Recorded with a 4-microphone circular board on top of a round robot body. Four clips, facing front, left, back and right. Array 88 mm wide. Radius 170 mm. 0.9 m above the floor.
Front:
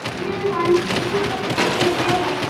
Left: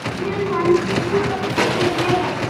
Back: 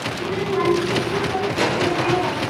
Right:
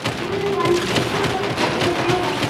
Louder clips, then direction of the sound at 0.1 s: Left 1 dB, front 1 dB; 60° left.